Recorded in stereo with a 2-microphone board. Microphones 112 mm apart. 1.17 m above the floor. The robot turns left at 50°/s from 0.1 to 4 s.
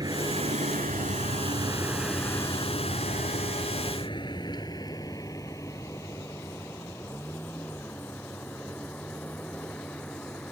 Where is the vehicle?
35° right (ahead or behind); by 10.5 s 10° left (ahead or behind).